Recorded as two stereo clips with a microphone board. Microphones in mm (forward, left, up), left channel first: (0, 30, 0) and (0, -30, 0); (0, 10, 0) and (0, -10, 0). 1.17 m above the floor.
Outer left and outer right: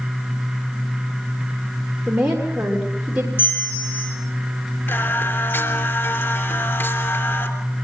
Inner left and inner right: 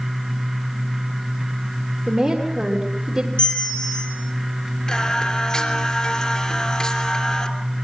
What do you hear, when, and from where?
2.1 s a woman speaking: 15° right (ahead or behind), 3 m
3.4 s a bell: 35° left (ahead or behind), 5 m
4.9 s singing: 45° left (ahead or behind), 3 m